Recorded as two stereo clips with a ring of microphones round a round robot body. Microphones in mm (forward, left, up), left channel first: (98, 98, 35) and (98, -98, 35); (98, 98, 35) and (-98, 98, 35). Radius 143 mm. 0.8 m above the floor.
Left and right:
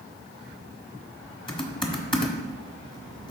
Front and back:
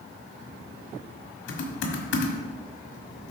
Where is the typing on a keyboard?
25° left, 1.4 m.